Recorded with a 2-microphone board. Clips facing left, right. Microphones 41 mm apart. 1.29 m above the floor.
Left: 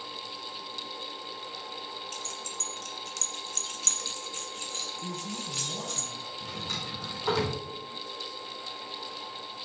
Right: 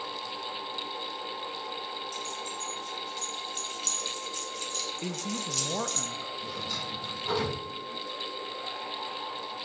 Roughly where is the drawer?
Left.